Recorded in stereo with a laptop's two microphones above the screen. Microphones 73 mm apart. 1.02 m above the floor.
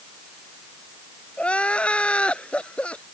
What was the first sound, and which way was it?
Crying, 15° left (ahead or behind).